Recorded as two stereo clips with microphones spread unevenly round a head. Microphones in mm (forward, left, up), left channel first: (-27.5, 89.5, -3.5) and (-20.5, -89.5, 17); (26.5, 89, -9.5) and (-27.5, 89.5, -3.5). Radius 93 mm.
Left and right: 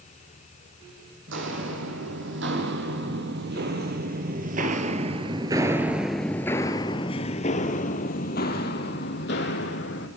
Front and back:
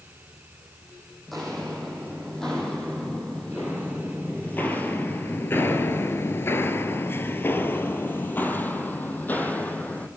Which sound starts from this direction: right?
Footsteps, at 1.3 s.